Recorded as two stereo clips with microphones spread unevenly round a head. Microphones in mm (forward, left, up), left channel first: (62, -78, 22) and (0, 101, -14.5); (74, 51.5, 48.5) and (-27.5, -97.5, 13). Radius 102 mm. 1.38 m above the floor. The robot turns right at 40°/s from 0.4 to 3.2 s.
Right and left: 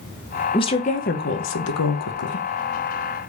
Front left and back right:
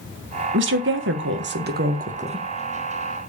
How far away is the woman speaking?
About 1.6 m.